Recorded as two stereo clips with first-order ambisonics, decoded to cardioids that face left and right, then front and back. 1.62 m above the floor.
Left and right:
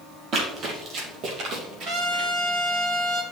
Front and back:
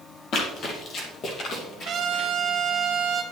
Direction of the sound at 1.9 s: 135° right.